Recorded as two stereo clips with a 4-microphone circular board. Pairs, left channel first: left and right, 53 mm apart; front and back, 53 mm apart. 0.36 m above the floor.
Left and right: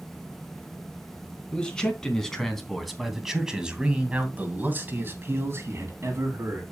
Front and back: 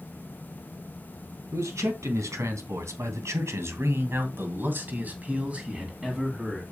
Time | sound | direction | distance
1.5 | a man speaking | 160° left | 3 m